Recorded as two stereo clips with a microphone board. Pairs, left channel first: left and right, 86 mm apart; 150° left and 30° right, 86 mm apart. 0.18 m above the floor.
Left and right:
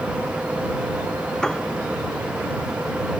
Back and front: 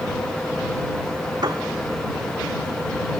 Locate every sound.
1.4 s a piano: 10° left